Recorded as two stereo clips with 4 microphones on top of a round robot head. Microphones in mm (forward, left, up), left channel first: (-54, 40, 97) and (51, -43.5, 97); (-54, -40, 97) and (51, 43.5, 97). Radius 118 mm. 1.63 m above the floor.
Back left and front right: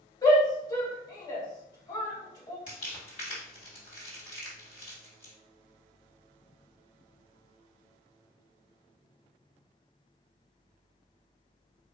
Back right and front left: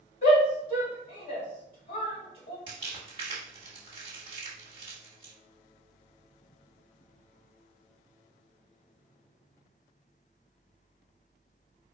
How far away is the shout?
About 2 m.